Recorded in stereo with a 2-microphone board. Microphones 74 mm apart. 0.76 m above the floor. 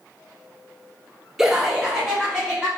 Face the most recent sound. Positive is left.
turn(degrees=-10)  # may be behind; listen again after turning